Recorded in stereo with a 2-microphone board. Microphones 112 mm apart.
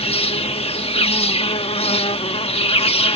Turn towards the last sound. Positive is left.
turn(degrees=60)  # may be behind; listen again after turning